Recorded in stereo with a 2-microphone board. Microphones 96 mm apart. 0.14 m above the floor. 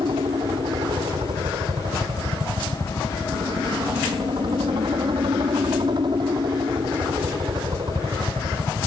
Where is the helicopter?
60° right (ahead or behind); by 8.9 s 50° right (ahead or behind).